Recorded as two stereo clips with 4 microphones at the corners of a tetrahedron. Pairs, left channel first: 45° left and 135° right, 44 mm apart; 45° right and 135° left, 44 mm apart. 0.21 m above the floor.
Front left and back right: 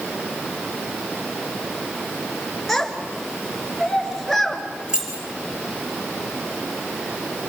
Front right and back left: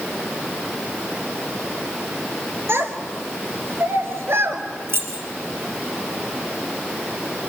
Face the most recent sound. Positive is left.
turn(degrees=155)